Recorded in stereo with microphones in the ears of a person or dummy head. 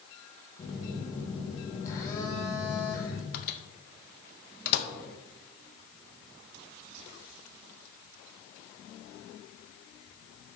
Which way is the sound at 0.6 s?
20° left (ahead or behind).